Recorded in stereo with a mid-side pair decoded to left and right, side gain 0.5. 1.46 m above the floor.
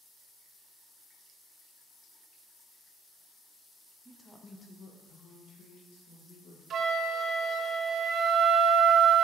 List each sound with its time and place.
4.0 s a woman speaking: 10° right, 1.1 m; by 6.6 s 75° left, 3 m
6.7 s a flute: 55° right, 0.6 m